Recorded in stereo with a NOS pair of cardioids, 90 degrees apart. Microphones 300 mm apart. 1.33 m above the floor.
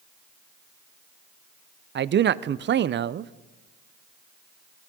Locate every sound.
1.9 s a man speaking: 40° right, 0.6 m